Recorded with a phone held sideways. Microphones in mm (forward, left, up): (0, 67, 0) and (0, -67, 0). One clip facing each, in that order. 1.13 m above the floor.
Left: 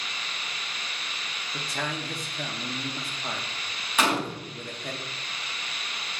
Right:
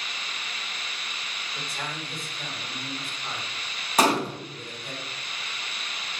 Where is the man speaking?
75° left (ahead or behind), 0.8 m.